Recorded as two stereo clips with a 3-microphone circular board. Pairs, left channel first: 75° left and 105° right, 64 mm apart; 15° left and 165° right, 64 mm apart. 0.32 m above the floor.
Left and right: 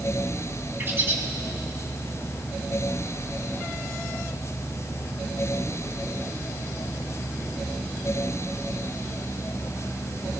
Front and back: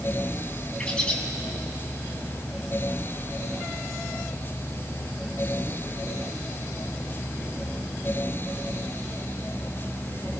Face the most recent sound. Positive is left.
turn(degrees=-55)